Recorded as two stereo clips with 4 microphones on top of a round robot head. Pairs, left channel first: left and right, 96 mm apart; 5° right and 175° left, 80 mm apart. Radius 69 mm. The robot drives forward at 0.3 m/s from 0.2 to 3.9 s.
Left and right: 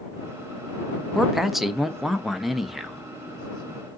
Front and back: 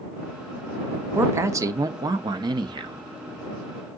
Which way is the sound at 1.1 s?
175° right.